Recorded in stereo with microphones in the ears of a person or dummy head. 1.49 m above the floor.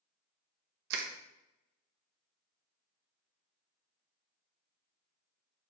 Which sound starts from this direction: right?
Crushing, at 0.9 s.